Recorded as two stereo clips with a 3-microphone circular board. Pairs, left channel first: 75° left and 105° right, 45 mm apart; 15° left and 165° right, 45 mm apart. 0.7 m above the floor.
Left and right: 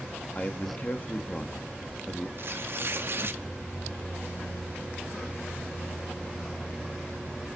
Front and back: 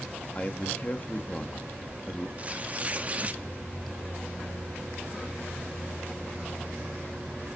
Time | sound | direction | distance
0.3 | a man speaking | 45° left | 1.2 m
2.4 | tearing paper | 115° right | 0.6 m